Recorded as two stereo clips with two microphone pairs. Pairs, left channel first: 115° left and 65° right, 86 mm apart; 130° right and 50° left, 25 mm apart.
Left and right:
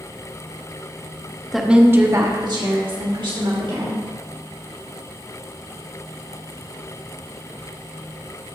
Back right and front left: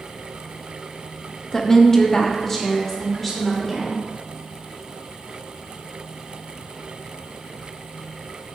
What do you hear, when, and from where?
1.5 s a woman speaking: 155° right, 1.0 m; by 4.0 s 50° right, 3 m